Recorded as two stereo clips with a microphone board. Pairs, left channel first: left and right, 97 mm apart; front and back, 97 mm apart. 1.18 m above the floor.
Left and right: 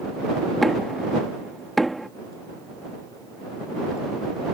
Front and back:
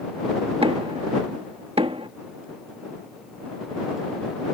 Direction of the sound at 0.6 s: Straight behind.